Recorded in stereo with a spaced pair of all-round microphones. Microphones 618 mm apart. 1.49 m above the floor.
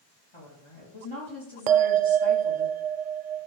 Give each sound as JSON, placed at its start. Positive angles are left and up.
{"t": 0.3, "sound": "a woman speaking", "side_deg": 50, "distance_m": 3.5}
{"t": 1.7, "sound": "a bell", "side_deg": -70, "distance_m": 0.5}